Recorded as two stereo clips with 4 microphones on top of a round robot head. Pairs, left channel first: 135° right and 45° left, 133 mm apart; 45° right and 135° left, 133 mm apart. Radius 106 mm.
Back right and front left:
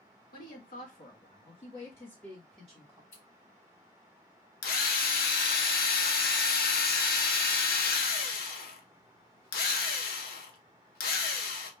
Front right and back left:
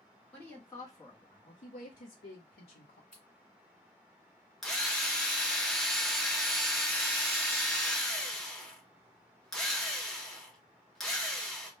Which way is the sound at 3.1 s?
130° right.